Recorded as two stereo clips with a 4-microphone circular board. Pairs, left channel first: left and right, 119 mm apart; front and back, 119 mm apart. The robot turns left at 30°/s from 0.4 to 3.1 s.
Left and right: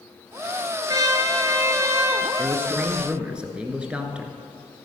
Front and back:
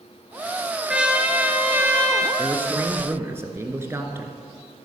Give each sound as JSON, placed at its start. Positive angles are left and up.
{"t": 0.9, "sound": "a trumpet", "azimuth_deg": -100, "distance_m": 1.3}
{"t": 2.4, "sound": "a man speaking", "azimuth_deg": -135, "distance_m": 1.3}